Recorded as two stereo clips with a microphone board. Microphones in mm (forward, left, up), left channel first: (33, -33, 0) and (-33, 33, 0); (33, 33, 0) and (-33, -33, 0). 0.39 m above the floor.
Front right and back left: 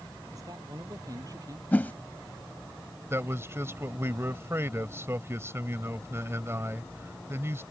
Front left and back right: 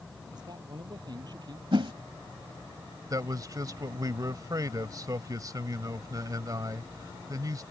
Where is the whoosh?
115° right.